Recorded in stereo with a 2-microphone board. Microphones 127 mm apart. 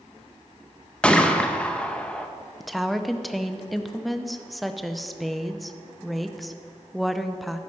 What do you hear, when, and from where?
1.0 s a gunshot: 10° left (ahead or behind), 0.6 m
2.6 s a woman speaking: centre (ahead or behind), 0.5 m